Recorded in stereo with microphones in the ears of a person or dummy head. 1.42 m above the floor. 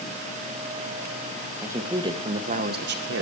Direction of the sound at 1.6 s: 10° right (ahead or behind).